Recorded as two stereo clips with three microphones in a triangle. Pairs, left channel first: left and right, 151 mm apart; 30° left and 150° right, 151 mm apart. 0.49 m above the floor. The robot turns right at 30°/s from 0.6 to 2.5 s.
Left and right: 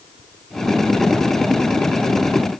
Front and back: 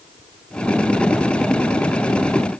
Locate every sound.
Only background noise.